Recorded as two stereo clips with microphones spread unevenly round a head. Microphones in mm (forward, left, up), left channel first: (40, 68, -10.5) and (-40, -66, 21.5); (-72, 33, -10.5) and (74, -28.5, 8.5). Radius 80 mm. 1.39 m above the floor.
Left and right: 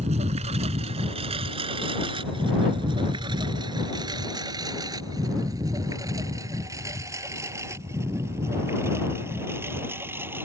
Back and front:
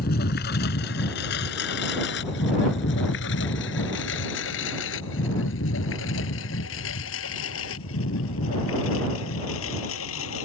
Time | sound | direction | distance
0.0 | a lawn mower | 165° right | ?